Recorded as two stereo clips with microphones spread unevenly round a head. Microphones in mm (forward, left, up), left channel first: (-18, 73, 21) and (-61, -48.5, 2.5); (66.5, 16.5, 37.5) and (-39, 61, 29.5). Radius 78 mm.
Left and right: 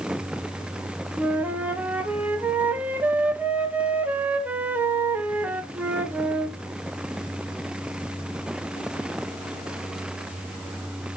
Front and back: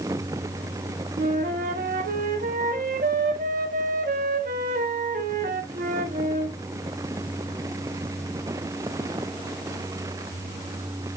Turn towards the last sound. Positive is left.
turn(degrees=170)